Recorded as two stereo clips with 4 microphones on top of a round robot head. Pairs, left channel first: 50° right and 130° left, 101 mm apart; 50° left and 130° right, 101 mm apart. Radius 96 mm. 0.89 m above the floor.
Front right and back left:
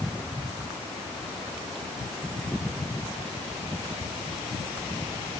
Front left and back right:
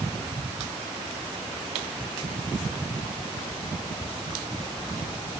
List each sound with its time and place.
Only background noise.